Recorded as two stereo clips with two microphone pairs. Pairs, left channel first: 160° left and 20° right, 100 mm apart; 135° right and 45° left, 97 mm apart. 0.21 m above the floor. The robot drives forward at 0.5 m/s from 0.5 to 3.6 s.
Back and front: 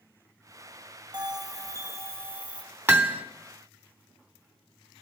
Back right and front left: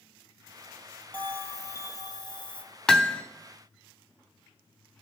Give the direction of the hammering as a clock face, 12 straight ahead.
2 o'clock.